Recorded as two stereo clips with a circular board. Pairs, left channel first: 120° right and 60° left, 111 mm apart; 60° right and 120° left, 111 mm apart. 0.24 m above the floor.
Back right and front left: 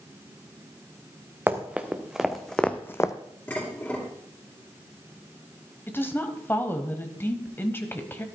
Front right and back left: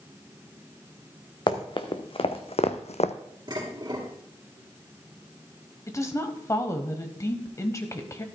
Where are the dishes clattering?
170° left, 2.5 m.